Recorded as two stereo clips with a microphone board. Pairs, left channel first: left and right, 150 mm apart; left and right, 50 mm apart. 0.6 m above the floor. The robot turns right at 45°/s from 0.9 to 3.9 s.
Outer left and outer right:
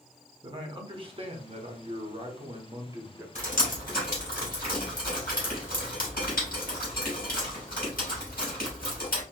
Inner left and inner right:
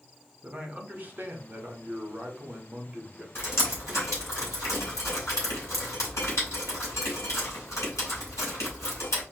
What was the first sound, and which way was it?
A man speaking, 130° right.